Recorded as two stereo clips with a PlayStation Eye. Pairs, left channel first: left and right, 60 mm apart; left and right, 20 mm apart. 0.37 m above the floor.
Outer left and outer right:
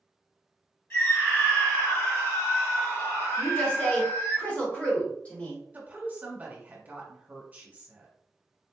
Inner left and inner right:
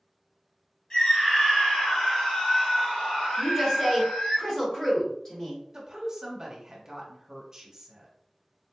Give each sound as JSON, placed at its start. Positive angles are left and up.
{"t": 0.9, "sound": "a scream", "side_deg": 40, "distance_m": 1.2}
{"t": 3.4, "sound": "a woman speaking", "side_deg": 25, "distance_m": 1.5}
{"t": 5.7, "sound": "a woman speaking", "side_deg": -30, "distance_m": 1.0}